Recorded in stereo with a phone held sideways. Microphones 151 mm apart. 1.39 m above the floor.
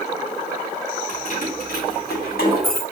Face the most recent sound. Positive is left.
turn(degrees=85)